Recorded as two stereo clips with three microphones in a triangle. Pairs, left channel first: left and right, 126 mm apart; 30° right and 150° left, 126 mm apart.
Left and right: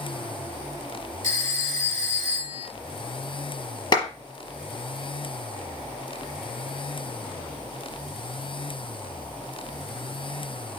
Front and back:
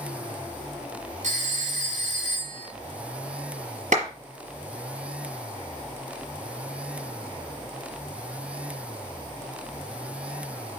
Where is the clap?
140° left, 5 m.